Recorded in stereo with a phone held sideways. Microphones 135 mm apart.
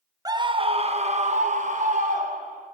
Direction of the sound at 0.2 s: 25° right (ahead or behind).